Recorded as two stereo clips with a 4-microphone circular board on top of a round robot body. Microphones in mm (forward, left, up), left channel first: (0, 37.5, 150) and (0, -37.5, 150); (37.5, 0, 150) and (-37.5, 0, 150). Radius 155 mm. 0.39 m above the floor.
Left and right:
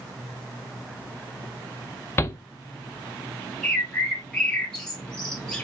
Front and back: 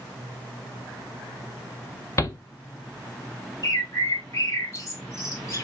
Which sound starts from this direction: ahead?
A bird, at 3.6 s.